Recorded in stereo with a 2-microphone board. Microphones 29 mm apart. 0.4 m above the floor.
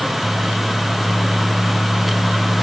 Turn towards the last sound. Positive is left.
No sound to turn to.